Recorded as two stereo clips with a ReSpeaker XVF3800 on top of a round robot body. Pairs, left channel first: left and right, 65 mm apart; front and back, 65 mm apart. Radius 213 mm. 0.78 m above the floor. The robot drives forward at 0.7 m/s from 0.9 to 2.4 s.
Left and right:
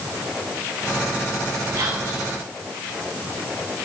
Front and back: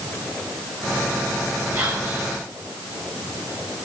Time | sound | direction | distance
1.7 | whispering | 135° right | 8.5 m